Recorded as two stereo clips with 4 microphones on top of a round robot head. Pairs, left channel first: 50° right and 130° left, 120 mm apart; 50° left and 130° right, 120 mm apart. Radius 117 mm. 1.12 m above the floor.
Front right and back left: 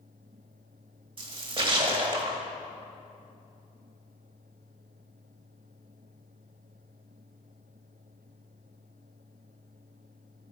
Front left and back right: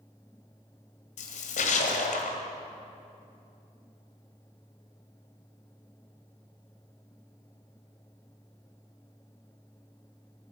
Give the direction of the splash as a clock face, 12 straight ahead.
9 o'clock.